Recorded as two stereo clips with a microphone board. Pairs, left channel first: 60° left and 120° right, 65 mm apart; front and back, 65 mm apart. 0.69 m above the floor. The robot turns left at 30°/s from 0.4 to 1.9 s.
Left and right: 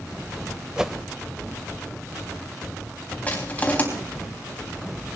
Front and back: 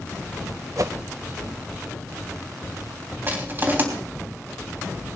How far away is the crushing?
About 3 m.